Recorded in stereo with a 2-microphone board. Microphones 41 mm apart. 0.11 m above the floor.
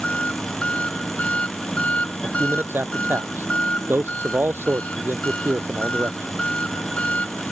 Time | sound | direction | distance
0.0 | an engine running | 30° left (ahead or behind) | ?
2.2 | a man speaking | 65° right (ahead or behind) | ?